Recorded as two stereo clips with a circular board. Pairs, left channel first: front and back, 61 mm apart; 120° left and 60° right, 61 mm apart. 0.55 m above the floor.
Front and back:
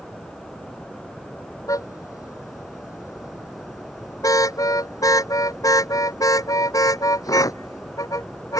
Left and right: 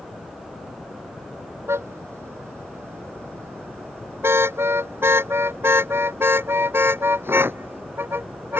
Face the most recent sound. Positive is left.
turn(degrees=-5)